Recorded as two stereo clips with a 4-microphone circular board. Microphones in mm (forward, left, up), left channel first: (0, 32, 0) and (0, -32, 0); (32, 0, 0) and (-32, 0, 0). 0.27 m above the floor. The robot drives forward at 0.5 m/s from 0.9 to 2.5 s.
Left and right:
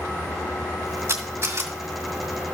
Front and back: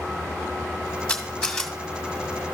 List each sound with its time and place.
1.1 s a camera shutter: 70° right, 1.7 m; by 2.5 s 100° right, 1.6 m